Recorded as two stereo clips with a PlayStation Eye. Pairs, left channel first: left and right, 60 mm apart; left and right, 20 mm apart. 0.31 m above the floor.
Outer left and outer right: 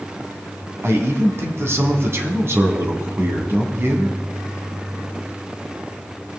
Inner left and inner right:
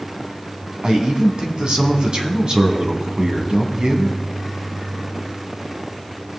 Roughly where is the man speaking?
Right.